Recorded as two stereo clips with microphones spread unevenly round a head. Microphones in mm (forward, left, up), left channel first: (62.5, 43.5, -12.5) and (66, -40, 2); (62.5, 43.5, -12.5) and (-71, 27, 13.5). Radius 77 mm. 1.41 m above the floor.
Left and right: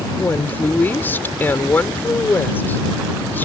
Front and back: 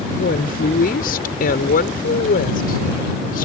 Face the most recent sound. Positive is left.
turn(degrees=25)